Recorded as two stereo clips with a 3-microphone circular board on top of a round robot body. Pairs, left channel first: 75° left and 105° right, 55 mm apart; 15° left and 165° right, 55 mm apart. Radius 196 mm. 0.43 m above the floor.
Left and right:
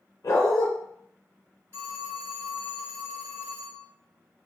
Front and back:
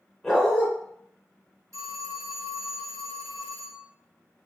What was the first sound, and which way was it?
A dog barking, 100° left.